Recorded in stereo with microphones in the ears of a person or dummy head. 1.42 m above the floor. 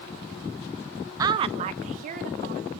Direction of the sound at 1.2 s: 15° right (ahead or behind).